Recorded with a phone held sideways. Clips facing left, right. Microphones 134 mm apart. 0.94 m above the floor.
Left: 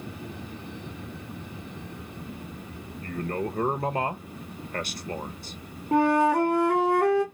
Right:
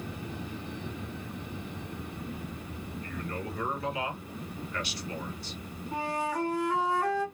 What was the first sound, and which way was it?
A man speaking, 50° left (ahead or behind).